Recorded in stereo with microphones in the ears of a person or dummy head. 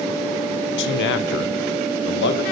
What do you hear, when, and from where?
0.8 s a man speaking: 60° left (ahead or behind), 1.5 m